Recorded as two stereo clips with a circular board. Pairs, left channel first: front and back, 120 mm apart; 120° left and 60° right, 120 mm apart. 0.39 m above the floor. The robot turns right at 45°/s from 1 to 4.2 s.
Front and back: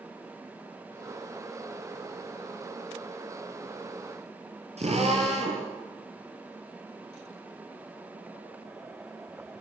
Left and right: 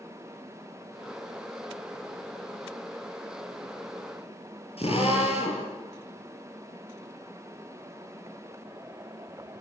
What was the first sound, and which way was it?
A drill, 155° left.